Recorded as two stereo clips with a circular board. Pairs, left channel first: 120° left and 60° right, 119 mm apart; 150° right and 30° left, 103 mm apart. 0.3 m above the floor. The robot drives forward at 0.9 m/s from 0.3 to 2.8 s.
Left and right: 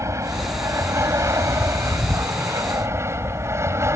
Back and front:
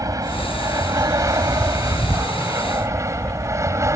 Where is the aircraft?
10° right.